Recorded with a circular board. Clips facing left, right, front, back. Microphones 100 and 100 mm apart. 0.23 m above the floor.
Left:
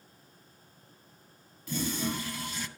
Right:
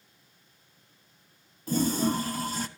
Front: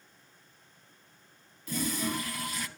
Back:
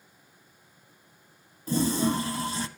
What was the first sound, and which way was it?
A toilet flushing, 130° right.